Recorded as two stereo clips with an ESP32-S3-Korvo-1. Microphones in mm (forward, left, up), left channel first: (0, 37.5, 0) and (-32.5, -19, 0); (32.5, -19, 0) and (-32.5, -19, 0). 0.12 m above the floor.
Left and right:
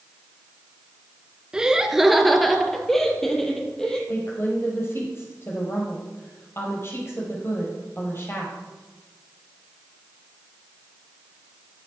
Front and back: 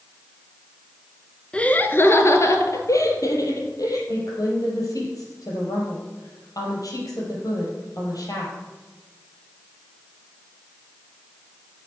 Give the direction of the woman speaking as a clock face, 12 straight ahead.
12 o'clock.